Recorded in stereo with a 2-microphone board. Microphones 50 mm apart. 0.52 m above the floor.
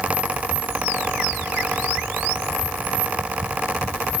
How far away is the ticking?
I don't hear ticking.